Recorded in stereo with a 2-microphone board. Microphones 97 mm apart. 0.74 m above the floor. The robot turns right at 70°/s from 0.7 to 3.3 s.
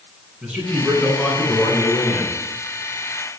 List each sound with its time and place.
0.4 s a man speaking: 15° right, 9 m; by 2.3 s 100° left, 9 m